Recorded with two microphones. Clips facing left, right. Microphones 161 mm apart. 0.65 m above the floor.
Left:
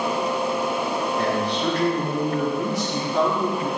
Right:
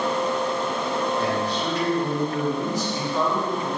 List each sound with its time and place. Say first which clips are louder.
1.2 s a man speaking: left 1 dB; 75° left (ahead or behind), 5 m